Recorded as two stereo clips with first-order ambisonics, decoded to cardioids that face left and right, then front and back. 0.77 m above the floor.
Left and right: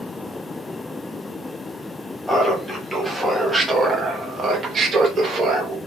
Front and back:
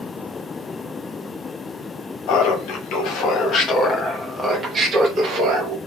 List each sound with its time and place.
2.3 s laughter: 5° left, 1.4 m; by 5.8 s 150° right, 1.1 m